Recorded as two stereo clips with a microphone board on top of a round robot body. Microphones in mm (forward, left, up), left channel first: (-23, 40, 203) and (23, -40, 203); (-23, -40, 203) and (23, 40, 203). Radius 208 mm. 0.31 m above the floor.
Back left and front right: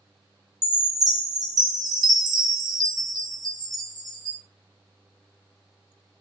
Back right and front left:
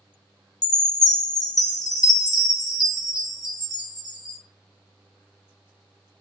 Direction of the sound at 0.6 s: 95° right.